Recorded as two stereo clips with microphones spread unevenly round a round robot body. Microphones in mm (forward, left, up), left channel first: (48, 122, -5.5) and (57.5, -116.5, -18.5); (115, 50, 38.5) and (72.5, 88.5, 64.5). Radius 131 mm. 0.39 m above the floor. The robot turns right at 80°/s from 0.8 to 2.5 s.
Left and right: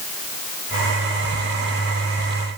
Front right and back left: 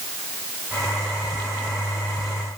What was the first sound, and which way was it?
Only background noise.